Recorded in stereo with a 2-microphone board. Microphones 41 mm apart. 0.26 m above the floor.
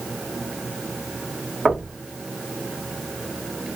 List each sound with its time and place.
1.6 s knocking: 15° right (ahead or behind), 1.2 m